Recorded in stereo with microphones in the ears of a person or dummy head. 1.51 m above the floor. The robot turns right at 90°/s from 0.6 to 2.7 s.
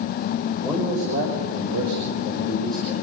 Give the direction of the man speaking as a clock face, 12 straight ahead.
6 o'clock.